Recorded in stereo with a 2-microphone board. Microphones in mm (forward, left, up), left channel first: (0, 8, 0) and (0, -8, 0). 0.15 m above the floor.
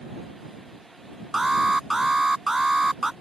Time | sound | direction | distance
1.3 | an alarm | 25° right (ahead or behind) | ?